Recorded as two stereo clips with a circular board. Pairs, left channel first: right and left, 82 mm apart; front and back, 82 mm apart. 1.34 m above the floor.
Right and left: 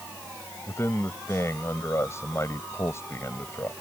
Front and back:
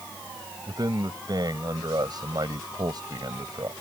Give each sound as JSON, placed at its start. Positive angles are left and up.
{"t": 0.7, "sound": "a man speaking", "azimuth_deg": -145}